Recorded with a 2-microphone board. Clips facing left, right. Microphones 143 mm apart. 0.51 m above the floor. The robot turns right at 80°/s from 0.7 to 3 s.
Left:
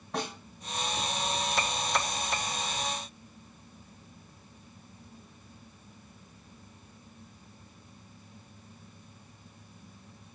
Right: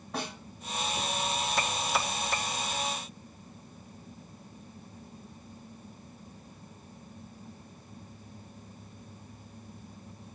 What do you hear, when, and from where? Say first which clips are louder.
0.1 s a snare drum: left 2 dB; 5° right (ahead or behind), 1.7 m